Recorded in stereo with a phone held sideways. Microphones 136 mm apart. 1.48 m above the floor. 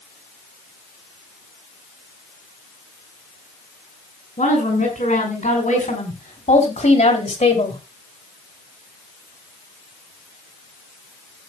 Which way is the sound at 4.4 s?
70° left (ahead or behind).